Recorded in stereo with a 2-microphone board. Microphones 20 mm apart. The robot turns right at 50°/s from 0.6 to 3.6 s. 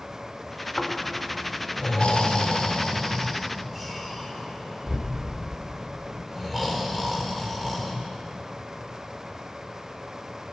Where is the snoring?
40° left (ahead or behind), 4.5 m; by 7.9 s 5° right (ahead or behind), 4.5 m.